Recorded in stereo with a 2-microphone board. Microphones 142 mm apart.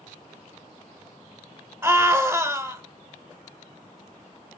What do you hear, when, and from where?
1.8 s a scream: 15° right (ahead or behind), 0.9 m